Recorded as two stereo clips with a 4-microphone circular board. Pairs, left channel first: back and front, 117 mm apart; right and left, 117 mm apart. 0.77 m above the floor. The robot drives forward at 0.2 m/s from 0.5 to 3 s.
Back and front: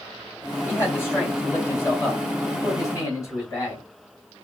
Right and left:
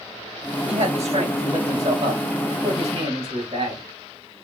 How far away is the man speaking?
About 3.5 m.